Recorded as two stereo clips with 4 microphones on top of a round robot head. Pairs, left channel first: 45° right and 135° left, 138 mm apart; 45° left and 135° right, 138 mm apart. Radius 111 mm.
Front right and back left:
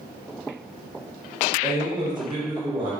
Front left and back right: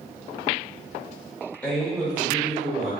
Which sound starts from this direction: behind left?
A man speaking, at 1.6 s.